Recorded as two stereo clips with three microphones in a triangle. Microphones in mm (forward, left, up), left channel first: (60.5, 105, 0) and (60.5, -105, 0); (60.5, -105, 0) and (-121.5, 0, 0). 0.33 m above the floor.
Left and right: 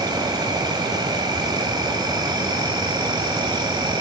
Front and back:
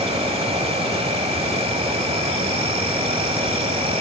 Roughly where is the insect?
Behind right.